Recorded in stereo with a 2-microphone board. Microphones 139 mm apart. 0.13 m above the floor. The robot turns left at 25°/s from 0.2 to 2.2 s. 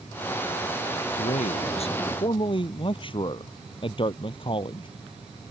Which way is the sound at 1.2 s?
60° left (ahead or behind).